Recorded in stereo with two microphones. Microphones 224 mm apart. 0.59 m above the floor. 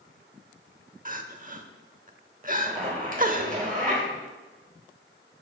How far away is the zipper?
About 2.5 m.